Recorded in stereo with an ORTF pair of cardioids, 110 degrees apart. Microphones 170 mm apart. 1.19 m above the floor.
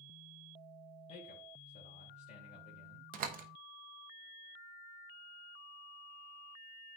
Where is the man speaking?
50° left, 3 m.